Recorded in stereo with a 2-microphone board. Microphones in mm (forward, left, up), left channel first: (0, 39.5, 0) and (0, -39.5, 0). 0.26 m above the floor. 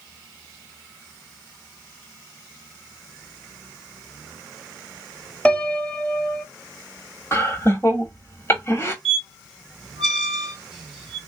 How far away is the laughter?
About 1.1 m.